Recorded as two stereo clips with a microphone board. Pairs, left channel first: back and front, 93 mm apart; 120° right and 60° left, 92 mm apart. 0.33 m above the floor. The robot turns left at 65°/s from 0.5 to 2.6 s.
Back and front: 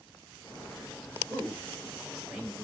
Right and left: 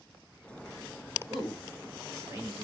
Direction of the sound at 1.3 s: 150° left.